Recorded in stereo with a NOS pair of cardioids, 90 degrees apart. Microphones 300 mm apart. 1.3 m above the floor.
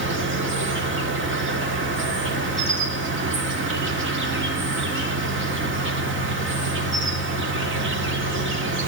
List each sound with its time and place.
0.0 s an insect: 40° right, 1.9 m